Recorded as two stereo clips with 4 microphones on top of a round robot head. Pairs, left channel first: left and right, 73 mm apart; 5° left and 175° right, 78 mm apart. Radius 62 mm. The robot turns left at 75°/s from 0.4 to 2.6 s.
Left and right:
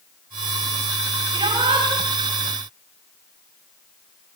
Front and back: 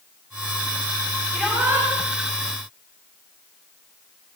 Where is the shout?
85° right, 7 m; by 1.9 s 125° right, 7 m.